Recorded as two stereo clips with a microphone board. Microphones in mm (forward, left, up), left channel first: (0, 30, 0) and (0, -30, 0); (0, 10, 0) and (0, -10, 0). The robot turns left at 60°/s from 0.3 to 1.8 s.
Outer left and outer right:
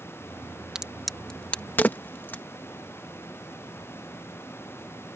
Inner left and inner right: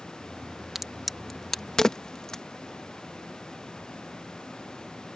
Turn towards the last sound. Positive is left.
turn(degrees=30)  # may be behind; listen again after turning